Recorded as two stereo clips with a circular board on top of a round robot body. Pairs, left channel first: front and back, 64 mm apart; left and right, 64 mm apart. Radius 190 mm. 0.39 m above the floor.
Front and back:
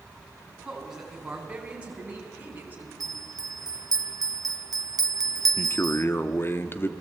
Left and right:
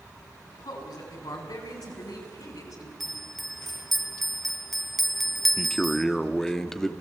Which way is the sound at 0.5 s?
95° left.